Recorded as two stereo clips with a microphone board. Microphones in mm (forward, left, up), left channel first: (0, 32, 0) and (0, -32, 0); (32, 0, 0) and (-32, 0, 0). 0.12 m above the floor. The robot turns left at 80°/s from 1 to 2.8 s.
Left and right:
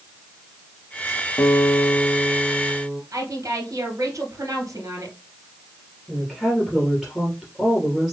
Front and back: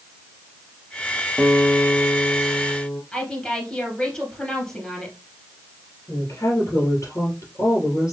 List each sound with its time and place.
1.4 s a guitar: 100° left, 1.5 m; by 3.0 s 10° right, 1.5 m
3.1 s a woman speaking: 75° right, 2.5 m
6.1 s a woman speaking: straight ahead, 2.5 m